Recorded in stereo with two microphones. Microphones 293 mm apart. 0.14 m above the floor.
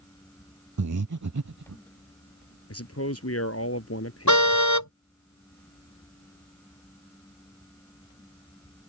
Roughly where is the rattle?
I don't hear a rattle.